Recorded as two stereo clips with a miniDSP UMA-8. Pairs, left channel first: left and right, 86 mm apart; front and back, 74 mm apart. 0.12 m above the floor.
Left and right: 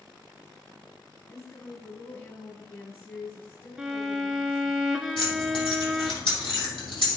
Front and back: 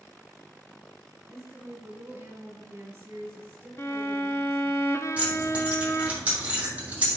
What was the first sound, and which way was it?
A woman speaking, 145° left.